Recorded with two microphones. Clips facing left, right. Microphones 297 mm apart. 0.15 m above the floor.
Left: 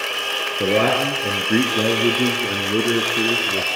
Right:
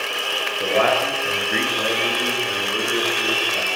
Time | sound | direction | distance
0.6 | a man speaking | 45° left (ahead or behind) | 3 m